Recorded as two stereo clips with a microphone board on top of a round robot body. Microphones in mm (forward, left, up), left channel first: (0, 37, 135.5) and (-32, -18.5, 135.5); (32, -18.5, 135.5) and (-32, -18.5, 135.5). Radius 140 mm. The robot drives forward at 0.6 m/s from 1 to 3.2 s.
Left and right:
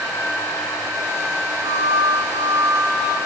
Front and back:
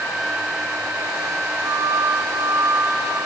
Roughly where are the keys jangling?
I don't hear keys jangling.